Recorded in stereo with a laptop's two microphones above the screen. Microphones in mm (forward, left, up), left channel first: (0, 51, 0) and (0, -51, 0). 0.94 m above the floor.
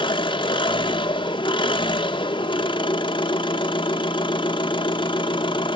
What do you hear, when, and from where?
0.0 s an engine running: 45° left (ahead or behind), 1.0 m